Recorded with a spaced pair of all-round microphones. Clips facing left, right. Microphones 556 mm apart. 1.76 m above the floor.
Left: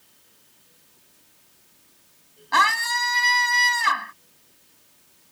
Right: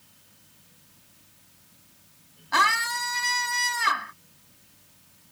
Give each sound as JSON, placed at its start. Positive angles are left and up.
{"t": 0.0, "sound": "a fan", "side_deg": -30}
{"t": 2.5, "sound": "a scream", "side_deg": 20}